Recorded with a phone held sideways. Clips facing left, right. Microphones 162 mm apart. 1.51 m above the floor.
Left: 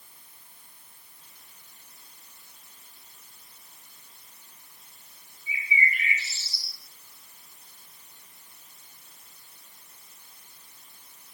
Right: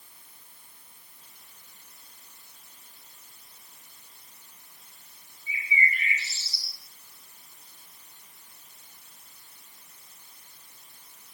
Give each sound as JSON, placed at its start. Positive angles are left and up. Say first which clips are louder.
{"t": 5.5, "sound": "a bird", "louder": "even", "side_deg": 5, "distance_m": 5.0}